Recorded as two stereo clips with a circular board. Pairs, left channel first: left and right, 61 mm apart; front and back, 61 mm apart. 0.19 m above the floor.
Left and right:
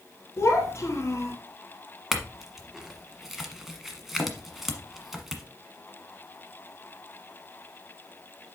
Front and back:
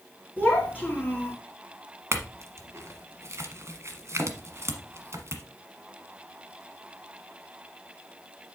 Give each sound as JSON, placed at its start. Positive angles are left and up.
{"t": 0.4, "sound": "a child speaking", "azimuth_deg": 60, "distance_m": 1.9}
{"t": 2.1, "sound": "a clink", "azimuth_deg": -175, "distance_m": 1.2}